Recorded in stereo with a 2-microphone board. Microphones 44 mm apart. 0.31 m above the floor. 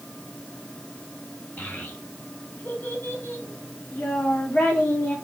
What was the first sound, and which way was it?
A child speaking, 45° left (ahead or behind).